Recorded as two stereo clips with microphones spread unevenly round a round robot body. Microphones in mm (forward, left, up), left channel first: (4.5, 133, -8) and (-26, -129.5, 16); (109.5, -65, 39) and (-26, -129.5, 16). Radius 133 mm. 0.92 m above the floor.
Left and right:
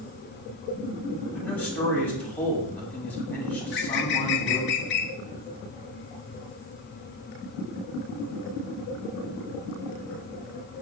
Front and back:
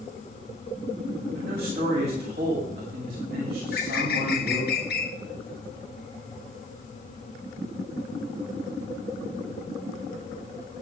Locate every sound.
1.3 s a man speaking: 165° left, 8 m
3.6 s a bird: 40° left, 1.6 m